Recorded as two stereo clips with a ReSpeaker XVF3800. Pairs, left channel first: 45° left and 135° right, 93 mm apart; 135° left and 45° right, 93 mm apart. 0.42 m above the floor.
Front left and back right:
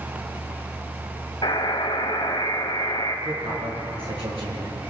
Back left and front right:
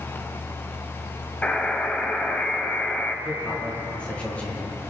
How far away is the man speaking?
About 8 m.